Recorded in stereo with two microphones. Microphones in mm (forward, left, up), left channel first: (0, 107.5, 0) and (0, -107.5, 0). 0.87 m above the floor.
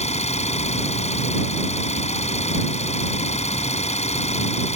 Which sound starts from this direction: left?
An engine running, at 0.0 s.